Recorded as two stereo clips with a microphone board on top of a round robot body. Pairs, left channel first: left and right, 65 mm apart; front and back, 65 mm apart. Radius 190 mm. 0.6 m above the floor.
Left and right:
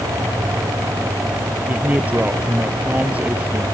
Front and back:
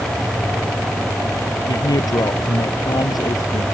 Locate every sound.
1.7 s a man speaking: 20° right